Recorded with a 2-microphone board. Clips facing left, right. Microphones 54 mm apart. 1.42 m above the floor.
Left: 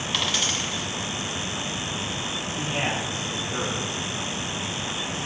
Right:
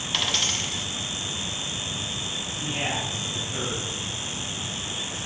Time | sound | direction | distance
0.1 | a dropped coin | centre (ahead or behind) | 1.5 m
2.6 | a man speaking | 50° left (ahead or behind) | 2.5 m